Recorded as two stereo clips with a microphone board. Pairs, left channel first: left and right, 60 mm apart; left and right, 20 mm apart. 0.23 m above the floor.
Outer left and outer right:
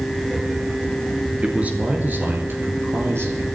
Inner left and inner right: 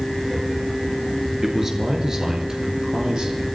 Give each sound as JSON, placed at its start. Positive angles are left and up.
{"t": 1.4, "sound": "a man speaking", "side_deg": -20, "distance_m": 2.5}